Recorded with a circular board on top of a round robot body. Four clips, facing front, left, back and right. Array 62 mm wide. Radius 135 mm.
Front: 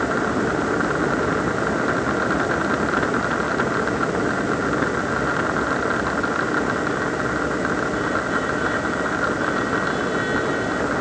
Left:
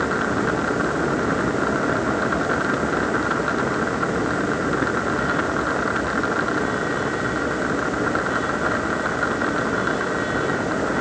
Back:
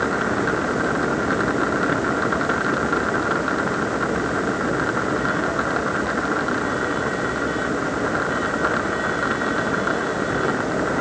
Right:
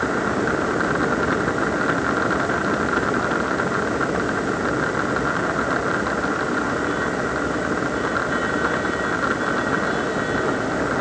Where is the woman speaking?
No woman speaking in this recording.